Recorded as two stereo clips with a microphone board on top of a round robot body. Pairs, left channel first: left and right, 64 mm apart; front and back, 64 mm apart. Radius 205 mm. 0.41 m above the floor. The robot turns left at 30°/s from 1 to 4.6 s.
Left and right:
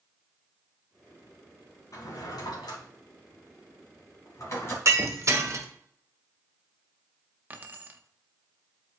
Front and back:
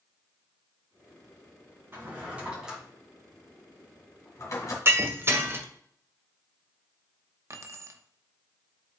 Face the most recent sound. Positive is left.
turn(degrees=-150)